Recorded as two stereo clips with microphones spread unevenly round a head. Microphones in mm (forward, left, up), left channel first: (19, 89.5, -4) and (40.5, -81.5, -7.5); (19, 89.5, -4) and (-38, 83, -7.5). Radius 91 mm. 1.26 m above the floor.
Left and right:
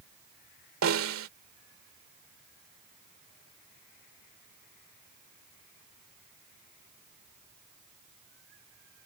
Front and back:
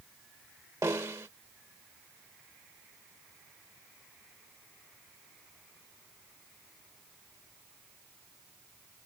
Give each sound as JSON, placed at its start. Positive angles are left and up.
{"t": 0.8, "sound": "a snare drum", "azimuth_deg": -105}